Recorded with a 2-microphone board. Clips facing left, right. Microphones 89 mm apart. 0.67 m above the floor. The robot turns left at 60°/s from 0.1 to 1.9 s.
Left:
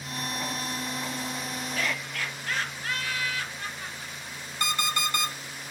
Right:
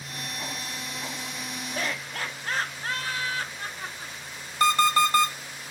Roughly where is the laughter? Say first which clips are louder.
Right 1 dB; right.